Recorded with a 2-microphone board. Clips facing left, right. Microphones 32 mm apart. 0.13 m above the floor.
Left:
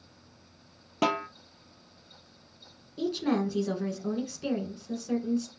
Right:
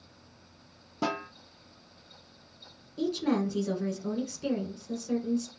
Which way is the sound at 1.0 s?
70° left (ahead or behind).